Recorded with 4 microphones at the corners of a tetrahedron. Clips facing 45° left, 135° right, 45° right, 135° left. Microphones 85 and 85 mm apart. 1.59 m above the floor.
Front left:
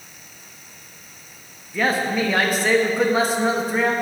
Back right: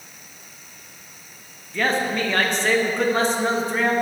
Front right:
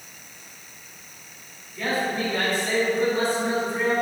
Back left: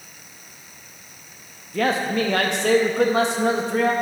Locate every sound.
1.7 s a man speaking: 130° left, 0.7 m